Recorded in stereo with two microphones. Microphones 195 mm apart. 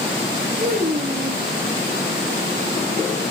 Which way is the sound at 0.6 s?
55° right (ahead or behind).